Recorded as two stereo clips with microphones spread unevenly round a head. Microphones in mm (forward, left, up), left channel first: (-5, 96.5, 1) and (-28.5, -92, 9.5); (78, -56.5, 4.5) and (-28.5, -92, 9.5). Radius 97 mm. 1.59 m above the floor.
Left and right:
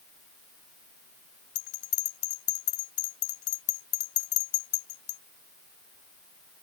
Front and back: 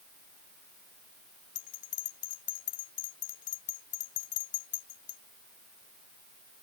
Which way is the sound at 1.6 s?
60° left.